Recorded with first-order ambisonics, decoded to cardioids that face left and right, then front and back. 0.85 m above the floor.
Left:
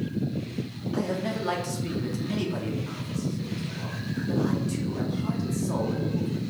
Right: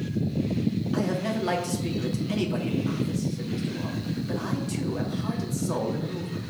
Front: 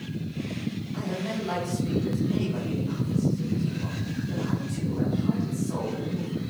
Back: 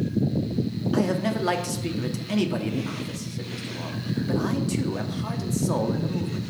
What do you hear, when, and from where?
0.9 s a man speaking: 170° right, 1.6 m